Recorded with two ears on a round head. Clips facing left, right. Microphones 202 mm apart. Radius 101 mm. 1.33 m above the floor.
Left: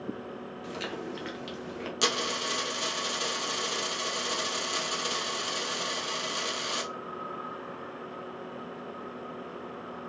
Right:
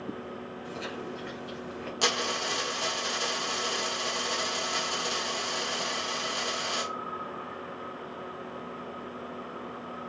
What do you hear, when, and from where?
0.6 s chewing: 80° left, 2 m
2.0 s a dropped coin: 25° left (ahead or behind), 2.5 m